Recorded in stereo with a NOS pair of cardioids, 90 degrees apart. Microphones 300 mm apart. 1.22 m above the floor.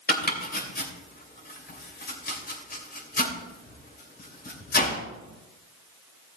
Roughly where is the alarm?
I don't hear an alarm.